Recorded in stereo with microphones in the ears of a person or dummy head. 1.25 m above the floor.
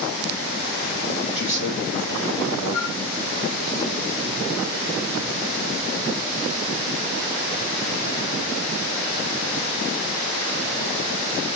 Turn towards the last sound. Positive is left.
turn(degrees=45)  # may be behind; listen again after turning